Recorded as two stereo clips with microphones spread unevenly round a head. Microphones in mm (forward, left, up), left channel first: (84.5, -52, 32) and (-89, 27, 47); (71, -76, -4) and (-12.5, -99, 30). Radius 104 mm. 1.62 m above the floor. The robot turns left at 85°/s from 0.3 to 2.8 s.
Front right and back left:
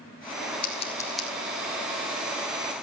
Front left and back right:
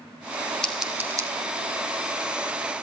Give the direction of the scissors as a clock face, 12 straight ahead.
2 o'clock.